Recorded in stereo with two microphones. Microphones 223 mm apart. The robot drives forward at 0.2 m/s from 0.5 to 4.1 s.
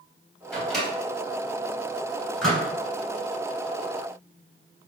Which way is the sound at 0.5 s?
Centre (ahead or behind).